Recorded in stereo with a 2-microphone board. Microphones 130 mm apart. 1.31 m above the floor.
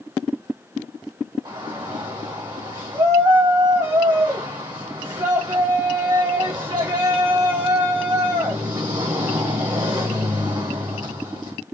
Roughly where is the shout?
Right.